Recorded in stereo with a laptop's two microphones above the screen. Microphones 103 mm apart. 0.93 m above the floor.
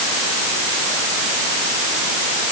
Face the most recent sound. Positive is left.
No sound to turn to.